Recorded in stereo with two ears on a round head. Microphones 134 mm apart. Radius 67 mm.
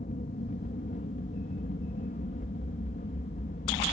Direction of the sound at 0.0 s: 50° left (ahead or behind).